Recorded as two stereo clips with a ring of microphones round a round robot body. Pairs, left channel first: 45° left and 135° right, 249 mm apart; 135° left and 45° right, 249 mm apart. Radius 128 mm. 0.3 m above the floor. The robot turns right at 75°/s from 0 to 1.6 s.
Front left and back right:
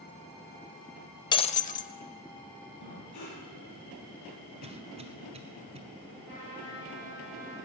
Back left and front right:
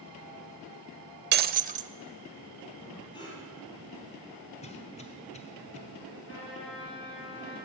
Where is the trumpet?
90° left, 6.5 m.